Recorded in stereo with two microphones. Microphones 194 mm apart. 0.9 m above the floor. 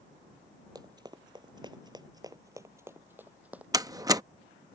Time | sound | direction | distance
0.8 | running footsteps | 20° right (ahead or behind) | ?
3.7 | a door slam | 20° right (ahead or behind) | ?